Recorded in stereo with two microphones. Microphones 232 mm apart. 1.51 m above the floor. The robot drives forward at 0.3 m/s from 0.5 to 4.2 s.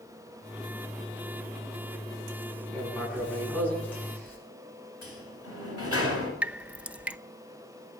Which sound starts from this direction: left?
A sliding door, at 5.0 s.